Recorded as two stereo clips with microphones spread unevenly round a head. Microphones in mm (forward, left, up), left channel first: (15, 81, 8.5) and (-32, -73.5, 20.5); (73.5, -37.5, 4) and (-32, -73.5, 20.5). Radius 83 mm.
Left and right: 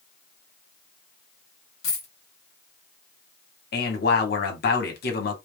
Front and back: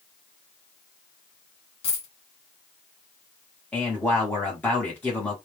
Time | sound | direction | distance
1.8 | a dropped coin | 45° left | 1.8 m
3.7 | a man speaking | 100° left | 1.3 m